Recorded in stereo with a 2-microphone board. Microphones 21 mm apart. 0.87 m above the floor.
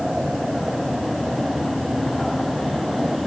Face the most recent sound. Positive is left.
No sound to turn to.